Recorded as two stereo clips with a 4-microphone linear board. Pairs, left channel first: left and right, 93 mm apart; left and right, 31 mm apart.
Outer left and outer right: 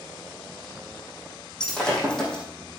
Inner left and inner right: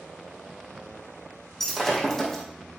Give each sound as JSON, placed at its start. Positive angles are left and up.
{"t": 1.6, "sound": "breaking glass", "side_deg": 10, "distance_m": 3.0}